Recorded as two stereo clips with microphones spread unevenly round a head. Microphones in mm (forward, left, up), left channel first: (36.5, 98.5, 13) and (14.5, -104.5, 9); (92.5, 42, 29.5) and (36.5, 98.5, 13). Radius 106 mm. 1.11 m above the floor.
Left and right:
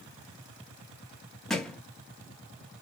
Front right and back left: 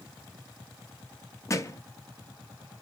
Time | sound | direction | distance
1.5 | a thud | 5° right | 1.0 m